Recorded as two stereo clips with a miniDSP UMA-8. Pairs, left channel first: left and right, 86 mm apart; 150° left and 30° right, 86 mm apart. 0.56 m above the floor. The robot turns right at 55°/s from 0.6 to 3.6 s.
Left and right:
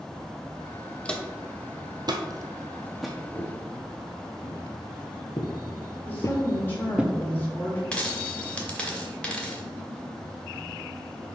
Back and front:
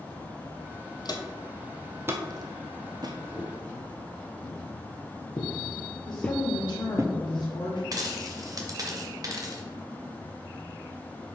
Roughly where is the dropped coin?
Ahead.